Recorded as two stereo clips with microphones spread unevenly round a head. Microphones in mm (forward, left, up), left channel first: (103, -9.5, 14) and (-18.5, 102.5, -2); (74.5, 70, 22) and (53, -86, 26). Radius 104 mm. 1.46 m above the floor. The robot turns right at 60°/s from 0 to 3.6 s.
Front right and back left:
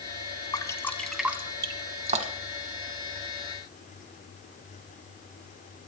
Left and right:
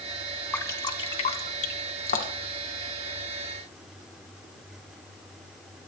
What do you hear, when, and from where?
0.5 s dripping: 5° left, 1.3 m; by 2.6 s 130° left, 1.3 m